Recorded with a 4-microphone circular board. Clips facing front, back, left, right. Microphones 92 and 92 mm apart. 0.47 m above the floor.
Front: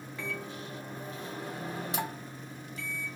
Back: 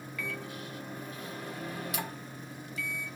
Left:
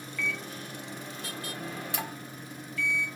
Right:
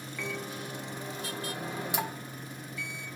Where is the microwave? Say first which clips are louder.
Front 1 dB, left 1 dB; 30° right, 0.6 m.